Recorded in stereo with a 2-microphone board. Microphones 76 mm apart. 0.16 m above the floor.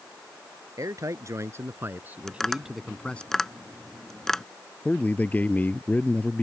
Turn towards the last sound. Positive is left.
turn(degrees=20)  # may be behind; listen again after turning